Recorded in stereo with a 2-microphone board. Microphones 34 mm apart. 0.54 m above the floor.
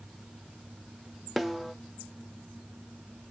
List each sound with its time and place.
1.4 s a snare drum: centre (ahead or behind), 0.5 m